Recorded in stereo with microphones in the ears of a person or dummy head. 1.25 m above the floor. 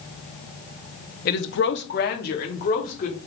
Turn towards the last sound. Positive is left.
turn(degrees=45)  # may be behind; listen again after turning